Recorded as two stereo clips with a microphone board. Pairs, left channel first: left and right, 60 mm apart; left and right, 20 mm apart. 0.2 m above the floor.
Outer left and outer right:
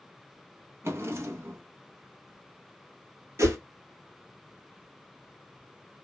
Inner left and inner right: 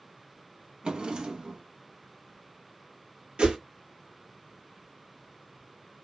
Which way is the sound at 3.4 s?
60° right (ahead or behind).